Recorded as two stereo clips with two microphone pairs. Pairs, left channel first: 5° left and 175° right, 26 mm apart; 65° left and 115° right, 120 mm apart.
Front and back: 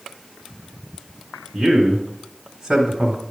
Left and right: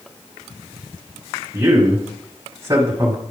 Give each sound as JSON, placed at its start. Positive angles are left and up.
{"t": 1.5, "sound": "a man speaking", "azimuth_deg": -105, "distance_m": 1.5}